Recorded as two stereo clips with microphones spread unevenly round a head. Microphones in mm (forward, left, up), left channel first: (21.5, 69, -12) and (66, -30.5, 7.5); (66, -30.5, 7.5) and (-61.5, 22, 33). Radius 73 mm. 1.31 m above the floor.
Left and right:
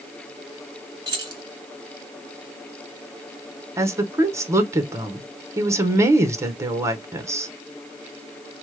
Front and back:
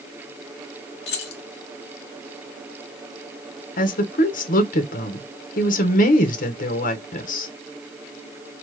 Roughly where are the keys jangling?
Ahead.